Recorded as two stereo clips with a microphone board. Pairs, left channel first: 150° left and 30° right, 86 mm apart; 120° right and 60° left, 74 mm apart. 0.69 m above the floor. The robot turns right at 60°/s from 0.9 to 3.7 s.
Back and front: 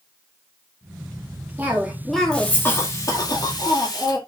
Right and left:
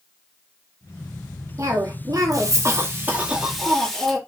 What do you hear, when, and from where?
1.6 s a cough: 30° left, 1.4 m; by 4.2 s 160° left, 1.4 m